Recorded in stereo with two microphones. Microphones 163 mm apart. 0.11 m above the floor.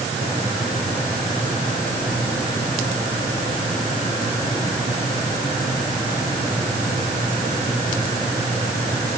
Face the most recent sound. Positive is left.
No sound to turn to.